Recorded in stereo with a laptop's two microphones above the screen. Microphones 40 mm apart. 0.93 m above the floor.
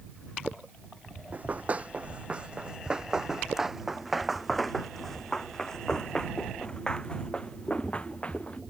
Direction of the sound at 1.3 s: 40° right (ahead or behind).